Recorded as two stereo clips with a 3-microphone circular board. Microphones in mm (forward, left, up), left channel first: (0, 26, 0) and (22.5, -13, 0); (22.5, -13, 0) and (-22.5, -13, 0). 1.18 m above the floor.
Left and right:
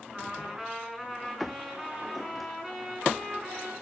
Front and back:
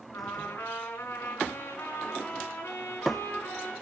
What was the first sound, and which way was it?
A trumpet, 25° left.